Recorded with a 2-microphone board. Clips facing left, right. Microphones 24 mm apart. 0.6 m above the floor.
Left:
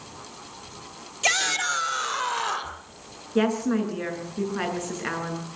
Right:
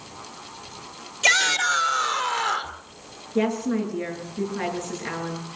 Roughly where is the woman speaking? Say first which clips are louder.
Left 1 dB; left.